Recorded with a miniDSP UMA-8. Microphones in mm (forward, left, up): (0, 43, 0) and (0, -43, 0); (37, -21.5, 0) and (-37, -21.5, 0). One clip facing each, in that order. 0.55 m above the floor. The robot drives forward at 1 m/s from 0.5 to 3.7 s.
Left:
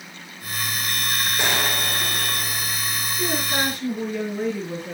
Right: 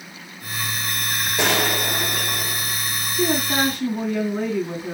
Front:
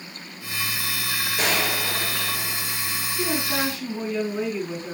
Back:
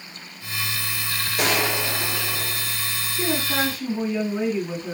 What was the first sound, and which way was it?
A gunshot, 95° right.